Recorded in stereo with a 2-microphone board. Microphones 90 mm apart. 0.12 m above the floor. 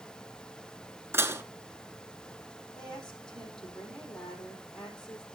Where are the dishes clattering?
30° right (ahead or behind), 0.9 m.